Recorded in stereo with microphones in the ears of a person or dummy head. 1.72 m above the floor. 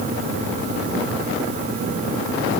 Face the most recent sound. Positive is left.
No sound to turn to.